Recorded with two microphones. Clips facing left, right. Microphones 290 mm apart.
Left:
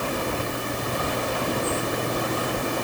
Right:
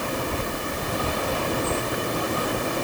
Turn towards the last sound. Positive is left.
No sound to turn to.